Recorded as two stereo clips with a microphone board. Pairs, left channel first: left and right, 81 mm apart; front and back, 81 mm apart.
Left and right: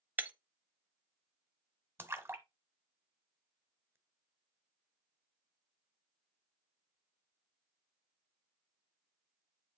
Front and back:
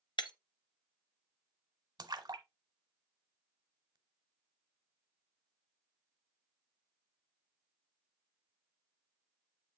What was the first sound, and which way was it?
Breaking glass, 20° right.